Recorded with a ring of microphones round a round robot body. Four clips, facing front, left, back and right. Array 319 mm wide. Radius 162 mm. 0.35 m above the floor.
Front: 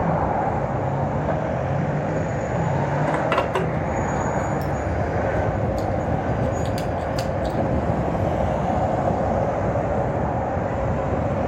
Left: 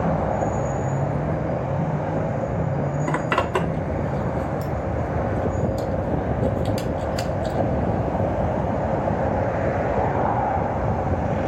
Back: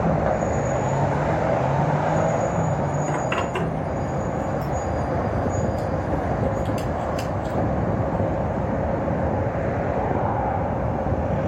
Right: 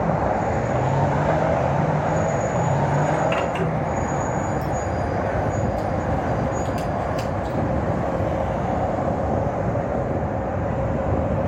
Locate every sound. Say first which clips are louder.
3.1 s a zipper: right 1 dB, front 3 dB; 45° left, 3 m